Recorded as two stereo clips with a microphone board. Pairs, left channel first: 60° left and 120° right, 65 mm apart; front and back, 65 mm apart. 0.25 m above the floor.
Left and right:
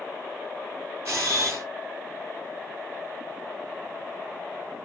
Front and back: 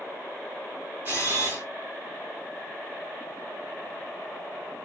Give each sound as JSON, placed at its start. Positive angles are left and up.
{"t": 1.1, "sound": "a camera shutter", "azimuth_deg": -140, "distance_m": 1.7}